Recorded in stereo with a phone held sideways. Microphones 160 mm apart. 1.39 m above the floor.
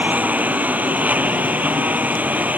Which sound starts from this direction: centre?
A lawn mower, at 0.0 s.